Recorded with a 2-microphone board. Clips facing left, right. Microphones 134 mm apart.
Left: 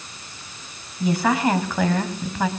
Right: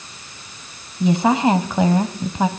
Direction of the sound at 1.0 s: 20° right (ahead or behind).